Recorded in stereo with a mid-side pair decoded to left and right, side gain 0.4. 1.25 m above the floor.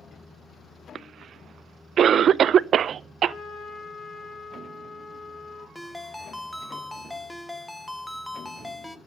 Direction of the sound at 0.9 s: 65° right.